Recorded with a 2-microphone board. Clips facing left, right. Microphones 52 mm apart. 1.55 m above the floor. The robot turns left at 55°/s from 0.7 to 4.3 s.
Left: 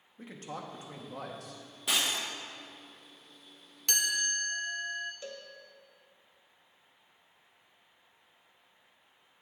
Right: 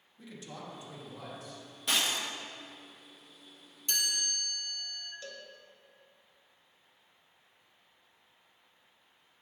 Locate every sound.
0.2 s a man speaking: 130° left, 1.1 m; by 1.6 s 80° left, 1.1 m
1.9 s breaking glass: 5° left (ahead or behind), 1.1 m; by 2.2 s 15° left (ahead or behind), 1.1 m
3.9 s a chime: 75° left (ahead or behind), 0.6 m
5.2 s a cowbell: 25° left (ahead or behind), 0.6 m